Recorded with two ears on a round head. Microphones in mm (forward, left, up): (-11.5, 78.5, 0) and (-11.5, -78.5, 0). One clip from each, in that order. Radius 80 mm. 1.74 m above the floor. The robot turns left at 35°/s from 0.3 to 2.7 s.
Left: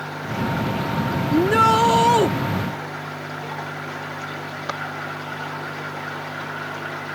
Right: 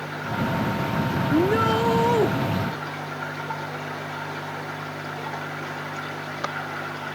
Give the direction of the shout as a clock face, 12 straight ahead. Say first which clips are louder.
Left 6 dB; 8 o'clock.